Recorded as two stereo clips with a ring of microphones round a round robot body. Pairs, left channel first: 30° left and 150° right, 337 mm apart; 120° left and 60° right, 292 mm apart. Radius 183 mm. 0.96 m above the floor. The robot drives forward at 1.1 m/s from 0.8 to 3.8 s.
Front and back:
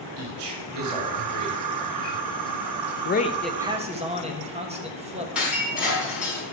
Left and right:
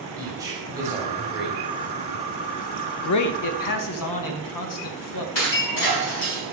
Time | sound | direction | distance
0.2 | a man speaking | 140° right | 2.5 m
3.0 | a man speaking | 80° left | 0.8 m
5.3 | breaking glass | 125° left | 4 m